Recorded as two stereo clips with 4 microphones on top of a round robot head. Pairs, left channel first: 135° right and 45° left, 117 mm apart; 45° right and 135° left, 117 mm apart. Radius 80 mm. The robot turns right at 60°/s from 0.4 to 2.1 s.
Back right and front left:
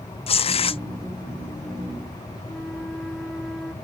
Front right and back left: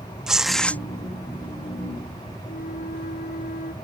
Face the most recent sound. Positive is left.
turn(degrees=-45)